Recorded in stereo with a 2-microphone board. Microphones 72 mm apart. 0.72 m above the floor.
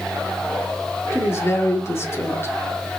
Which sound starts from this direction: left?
A woman speaking, at 1.1 s.